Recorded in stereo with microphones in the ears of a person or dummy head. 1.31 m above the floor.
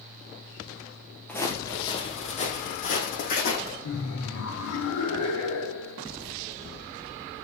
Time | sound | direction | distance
1.3 | footsteps | 10° left (ahead or behind) | 1.5 m
3.8 | laughter | 80° left | 3 m